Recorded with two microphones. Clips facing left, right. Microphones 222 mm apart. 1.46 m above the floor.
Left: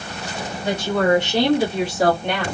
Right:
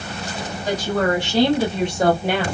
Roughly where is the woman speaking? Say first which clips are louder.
Left 2 dB; left.